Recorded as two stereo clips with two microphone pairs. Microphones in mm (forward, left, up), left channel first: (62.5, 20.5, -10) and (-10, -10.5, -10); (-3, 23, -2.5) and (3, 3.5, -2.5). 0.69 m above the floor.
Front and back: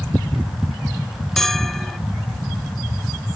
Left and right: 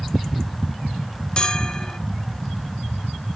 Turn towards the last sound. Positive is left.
turn(degrees=105)